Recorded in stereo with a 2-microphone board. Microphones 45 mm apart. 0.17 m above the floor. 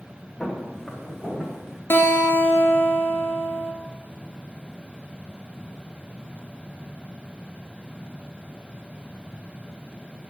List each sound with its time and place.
0.4 s footsteps: 10° left (ahead or behind), 5.5 m; by 1.8 s 5° left (ahead or behind), 6 m
1.9 s a guitar: 55° left (ahead or behind), 1.3 m